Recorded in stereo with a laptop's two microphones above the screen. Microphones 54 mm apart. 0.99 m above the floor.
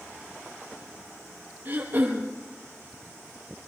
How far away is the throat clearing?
About 4.5 m.